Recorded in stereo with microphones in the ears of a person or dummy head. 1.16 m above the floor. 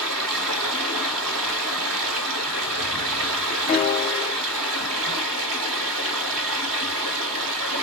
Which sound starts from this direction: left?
A piano, at 3.7 s.